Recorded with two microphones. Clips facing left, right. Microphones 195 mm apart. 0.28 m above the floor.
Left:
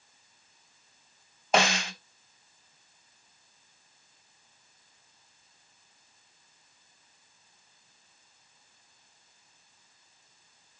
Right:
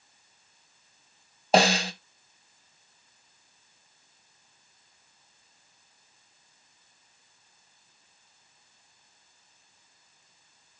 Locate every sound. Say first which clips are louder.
1.5 s a snare drum: right 5 dB; 35° right (ahead or behind), 0.6 m